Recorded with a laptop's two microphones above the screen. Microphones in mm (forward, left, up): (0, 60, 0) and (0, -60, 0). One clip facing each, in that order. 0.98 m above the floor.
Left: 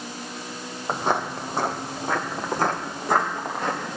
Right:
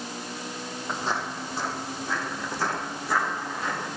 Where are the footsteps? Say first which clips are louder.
Left 6 dB; 55° left (ahead or behind), 1.6 m; by 4.0 s 45° left (ahead or behind), 4 m.